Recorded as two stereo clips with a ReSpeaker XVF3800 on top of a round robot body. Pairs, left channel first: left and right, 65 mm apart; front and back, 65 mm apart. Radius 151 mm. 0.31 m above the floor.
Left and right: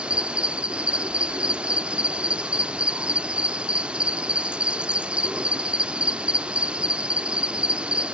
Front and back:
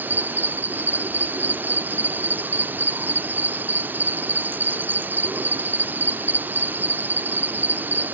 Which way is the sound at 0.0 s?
145° right.